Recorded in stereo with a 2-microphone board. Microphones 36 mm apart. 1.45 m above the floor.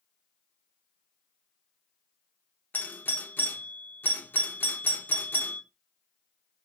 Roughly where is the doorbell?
Left.